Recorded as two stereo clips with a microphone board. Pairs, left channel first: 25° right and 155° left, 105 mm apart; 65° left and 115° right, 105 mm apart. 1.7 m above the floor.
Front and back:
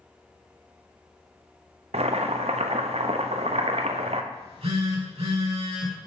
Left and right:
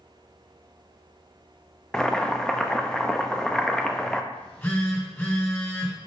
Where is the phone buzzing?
135° left, 2.5 m.